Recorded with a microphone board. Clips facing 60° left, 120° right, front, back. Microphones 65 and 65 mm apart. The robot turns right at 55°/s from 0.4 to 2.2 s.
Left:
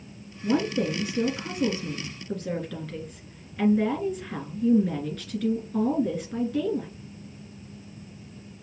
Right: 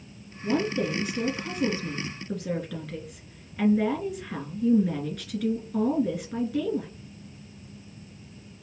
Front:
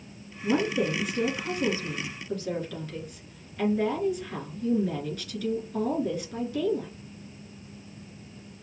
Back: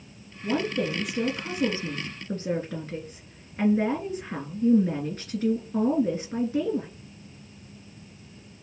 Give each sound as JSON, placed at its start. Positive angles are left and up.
{"t": 0.4, "sound": "a woman speaking", "azimuth_deg": 60, "distance_m": 1.8}